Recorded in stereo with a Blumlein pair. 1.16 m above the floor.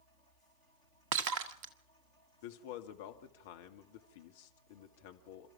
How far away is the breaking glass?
About 1.6 m.